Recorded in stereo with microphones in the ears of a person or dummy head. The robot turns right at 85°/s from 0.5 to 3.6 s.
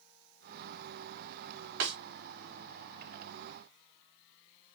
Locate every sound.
1.8 s a snare drum: 65° right (ahead or behind), 1.0 m; by 2.0 s 55° right (ahead or behind), 1.0 m